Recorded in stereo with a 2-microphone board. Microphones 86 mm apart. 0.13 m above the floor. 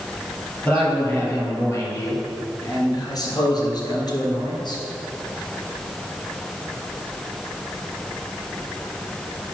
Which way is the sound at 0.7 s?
25° left (ahead or behind).